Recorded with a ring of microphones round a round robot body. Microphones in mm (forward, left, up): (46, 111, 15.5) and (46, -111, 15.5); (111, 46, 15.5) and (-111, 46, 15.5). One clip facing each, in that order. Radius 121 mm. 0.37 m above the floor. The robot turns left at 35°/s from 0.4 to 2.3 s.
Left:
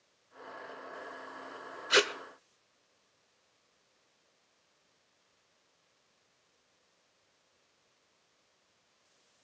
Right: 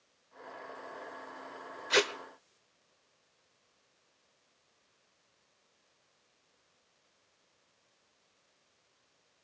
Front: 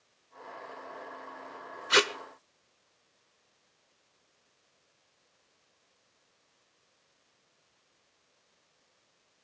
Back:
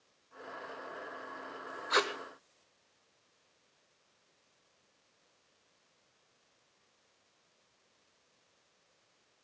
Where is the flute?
No flute in this recording.